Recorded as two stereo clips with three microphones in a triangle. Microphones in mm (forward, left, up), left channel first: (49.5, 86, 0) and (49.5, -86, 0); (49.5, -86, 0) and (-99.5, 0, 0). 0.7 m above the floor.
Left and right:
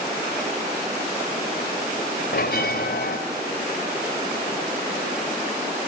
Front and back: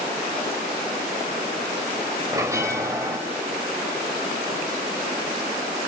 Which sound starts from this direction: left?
A bell, at 2.3 s.